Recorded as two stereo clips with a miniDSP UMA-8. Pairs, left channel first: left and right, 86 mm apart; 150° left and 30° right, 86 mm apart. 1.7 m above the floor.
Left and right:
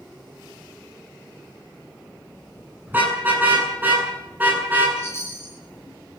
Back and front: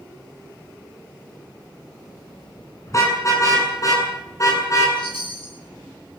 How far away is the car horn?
About 9 m.